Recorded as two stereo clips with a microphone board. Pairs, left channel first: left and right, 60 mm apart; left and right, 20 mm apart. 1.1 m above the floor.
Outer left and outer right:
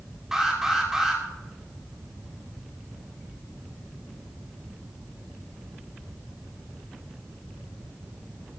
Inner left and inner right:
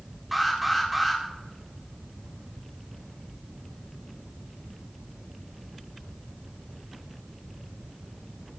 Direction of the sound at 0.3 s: 5° right (ahead or behind).